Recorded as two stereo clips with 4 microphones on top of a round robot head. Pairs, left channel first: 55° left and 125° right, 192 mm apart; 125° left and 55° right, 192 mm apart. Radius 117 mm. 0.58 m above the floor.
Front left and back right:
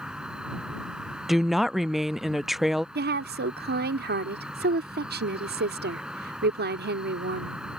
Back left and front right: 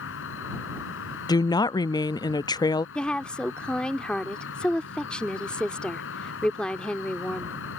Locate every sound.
0.0 s an insect: 145° left
1.3 s a woman speaking: 145° left
3.0 s a woman speaking: 150° right